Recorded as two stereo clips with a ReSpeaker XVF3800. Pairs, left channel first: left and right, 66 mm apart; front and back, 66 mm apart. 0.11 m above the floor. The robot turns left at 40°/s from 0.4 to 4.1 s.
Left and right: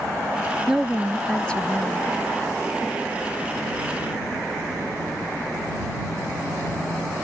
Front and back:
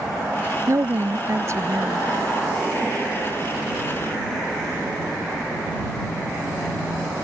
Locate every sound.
0.7 s a woman speaking: 165° right; by 2.1 s 135° left